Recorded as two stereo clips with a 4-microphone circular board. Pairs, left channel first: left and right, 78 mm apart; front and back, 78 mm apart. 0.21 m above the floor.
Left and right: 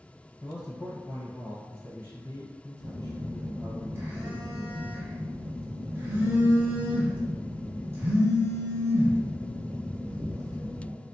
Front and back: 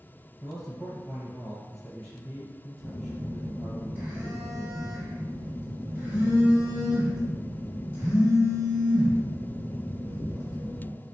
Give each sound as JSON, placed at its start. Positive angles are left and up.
{"t": 0.4, "sound": "a man speaking", "azimuth_deg": 90, "distance_m": 1.5}
{"t": 2.8, "sound": "a phone buzzing", "azimuth_deg": -125, "distance_m": 1.2}